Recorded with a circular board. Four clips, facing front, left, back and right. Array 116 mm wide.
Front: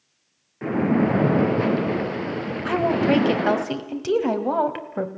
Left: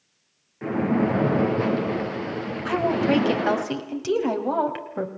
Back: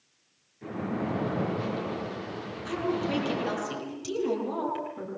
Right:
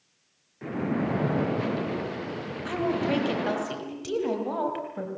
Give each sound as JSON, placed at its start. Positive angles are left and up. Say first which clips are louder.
{"t": 0.6, "sound": "a splash", "louder": "left 6 dB, front 12 dB", "azimuth_deg": 20, "distance_m": 2.5}
{"t": 2.6, "sound": "a woman speaking", "louder": "left 5 dB, front 9 dB", "azimuth_deg": 25, "distance_m": 3.0}